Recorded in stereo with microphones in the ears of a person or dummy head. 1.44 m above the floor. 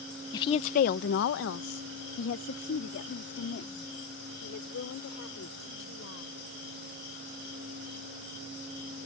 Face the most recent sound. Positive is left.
turn(degrees=70)  # may be behind; listen again after turning